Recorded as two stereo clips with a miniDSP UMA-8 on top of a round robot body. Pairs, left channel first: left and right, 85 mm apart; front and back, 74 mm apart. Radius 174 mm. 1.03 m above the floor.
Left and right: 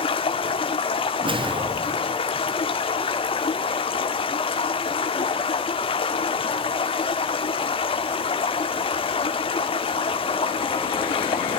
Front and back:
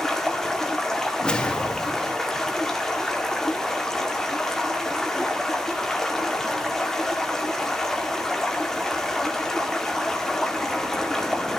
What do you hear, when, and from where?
0.0 s running water: 85° left, 1.8 m
1.2 s a whoosh: 80° right, 2.5 m